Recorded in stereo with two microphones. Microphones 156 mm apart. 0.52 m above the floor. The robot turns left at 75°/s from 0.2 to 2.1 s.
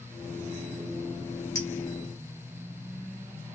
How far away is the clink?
About 1.5 m.